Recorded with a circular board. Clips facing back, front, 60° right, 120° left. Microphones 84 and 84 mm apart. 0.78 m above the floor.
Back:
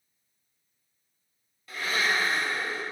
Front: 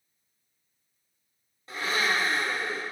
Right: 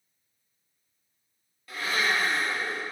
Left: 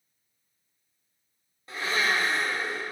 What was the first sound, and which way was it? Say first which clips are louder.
A blender: even, left 1 dB; 60° left.